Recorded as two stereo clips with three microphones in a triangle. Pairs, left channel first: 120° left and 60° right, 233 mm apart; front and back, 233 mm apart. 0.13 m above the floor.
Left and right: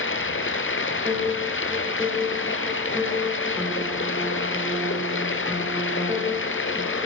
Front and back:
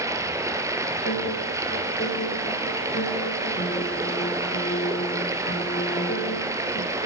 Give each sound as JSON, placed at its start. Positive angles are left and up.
{"t": 0.0, "sound": "running water", "azimuth_deg": 105, "distance_m": 2.0}
{"t": 1.1, "sound": "a piano", "azimuth_deg": 30, "distance_m": 8.0}